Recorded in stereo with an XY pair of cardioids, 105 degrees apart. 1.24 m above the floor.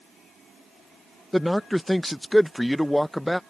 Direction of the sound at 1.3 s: Straight ahead.